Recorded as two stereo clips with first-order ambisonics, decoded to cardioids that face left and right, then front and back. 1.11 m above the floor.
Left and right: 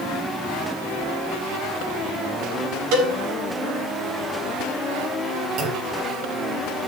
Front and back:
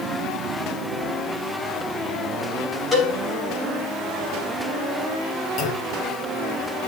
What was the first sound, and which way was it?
A cowbell, 80° right.